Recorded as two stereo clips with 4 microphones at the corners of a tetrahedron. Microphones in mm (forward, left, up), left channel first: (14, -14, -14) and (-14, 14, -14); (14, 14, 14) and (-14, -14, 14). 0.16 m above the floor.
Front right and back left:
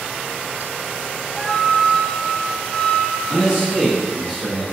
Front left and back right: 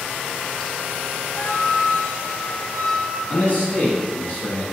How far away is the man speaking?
About 1.7 m.